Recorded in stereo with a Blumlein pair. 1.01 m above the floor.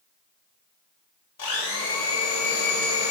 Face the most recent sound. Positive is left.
turn(degrees=55)